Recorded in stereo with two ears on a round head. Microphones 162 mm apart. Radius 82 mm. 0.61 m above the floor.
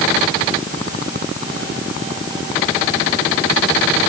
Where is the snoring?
No snoring in this recording.